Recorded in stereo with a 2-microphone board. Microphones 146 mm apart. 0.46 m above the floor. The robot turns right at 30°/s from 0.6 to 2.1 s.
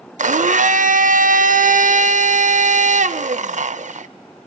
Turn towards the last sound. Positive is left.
turn(degrees=-65)